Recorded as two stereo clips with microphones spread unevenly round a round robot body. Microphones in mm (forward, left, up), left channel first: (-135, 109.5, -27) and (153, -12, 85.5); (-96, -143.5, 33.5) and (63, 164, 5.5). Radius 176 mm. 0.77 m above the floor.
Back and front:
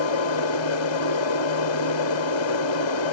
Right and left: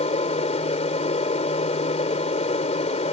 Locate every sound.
0.0 s an aircraft: 170° left